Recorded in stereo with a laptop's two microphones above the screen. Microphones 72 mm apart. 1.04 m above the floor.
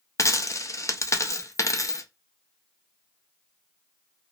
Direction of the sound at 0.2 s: 45° left (ahead or behind).